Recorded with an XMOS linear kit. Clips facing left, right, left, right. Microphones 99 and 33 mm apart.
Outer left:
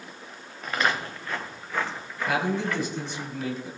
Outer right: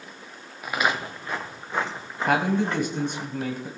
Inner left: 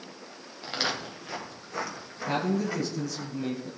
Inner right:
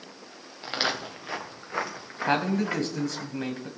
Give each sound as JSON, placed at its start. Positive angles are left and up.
{"t": 0.6, "sound": "footsteps", "side_deg": -10, "distance_m": 1.8}
{"t": 2.3, "sound": "a man speaking", "side_deg": -60, "distance_m": 1.7}